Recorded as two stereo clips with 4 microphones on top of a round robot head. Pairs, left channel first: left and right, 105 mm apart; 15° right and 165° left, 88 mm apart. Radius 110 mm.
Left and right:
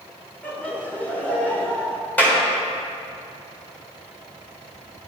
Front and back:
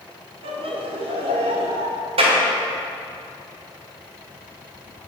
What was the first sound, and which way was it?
Laughter, 165° left.